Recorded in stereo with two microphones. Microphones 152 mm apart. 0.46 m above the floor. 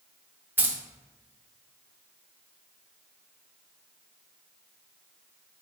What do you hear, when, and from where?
0.6 s keys jangling: 15° right (ahead or behind), 0.5 m